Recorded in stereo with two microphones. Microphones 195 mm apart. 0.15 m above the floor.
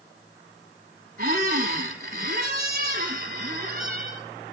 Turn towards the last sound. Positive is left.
turn(degrees=-50)  # may be behind; listen again after turning